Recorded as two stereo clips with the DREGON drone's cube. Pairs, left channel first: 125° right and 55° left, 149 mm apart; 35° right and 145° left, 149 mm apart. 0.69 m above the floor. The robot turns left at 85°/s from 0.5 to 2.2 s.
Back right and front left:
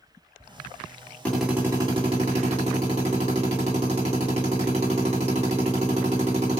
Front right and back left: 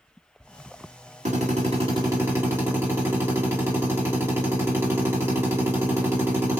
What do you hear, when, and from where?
1.2 s a drill: 160° left, 1.6 m; by 6.6 s 80° left, 1.6 m